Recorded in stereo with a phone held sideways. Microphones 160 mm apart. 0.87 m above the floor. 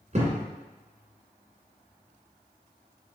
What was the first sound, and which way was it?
A thud, 45° right (ahead or behind).